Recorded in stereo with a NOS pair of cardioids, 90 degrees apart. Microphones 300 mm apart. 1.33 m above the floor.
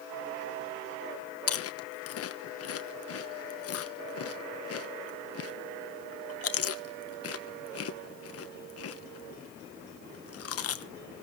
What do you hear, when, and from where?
1.5 s chewing: 50° left, 1.0 m